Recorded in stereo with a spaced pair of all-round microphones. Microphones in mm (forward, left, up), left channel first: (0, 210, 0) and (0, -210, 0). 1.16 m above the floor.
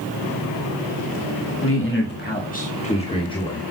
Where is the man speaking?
30° left (ahead or behind), 2.0 m; by 3.6 s 10° left (ahead or behind), 3 m.